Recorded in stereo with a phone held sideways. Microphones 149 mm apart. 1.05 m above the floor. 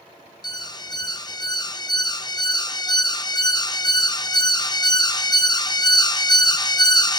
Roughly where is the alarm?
Left.